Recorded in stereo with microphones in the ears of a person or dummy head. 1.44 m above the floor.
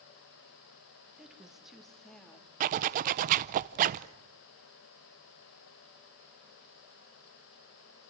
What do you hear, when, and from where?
1.2 s a woman speaking: 5° right (ahead or behind), 1.9 m; by 2.5 s 5° left (ahead or behind), 3.5 m
2.6 s a zipper: 40° right (ahead or behind), 0.6 m